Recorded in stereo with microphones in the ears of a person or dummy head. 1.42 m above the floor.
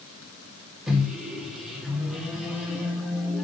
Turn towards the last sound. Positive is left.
turn(degrees=0)  # may be behind; listen again after turning